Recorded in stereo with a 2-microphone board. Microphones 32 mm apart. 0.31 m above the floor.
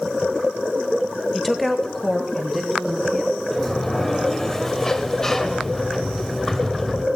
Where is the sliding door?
10° left (ahead or behind), 0.8 m.